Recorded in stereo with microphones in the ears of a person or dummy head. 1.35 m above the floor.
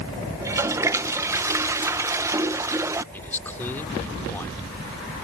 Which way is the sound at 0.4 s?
15° right (ahead or behind).